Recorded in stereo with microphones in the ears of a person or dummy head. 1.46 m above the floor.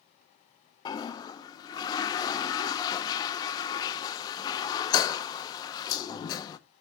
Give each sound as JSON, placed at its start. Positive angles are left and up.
{"t": 0.8, "sound": "a toilet flushing", "side_deg": 20, "distance_m": 0.8}